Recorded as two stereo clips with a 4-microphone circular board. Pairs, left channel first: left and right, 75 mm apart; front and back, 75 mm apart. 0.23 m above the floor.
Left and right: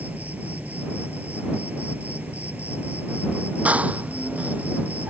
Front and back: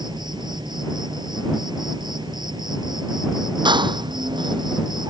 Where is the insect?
160° right.